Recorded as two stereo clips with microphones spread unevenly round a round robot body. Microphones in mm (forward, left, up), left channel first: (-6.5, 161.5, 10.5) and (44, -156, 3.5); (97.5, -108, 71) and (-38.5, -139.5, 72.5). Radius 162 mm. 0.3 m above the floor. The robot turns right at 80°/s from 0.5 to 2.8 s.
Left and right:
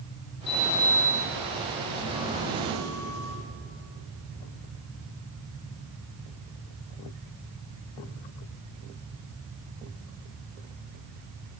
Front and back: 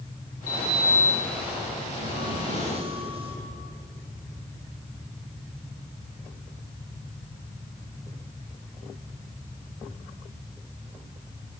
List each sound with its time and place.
0.5 s a sliding door: 55° left, 7 m; by 3.4 s 120° right, 7 m